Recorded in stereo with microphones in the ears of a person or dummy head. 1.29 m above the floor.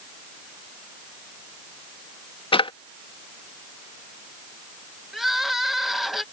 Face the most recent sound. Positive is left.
turn(degrees=-5)  # may be behind; listen again after turning